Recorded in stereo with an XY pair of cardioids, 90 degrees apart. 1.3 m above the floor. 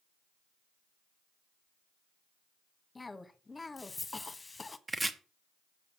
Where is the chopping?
20° right, 1.3 m.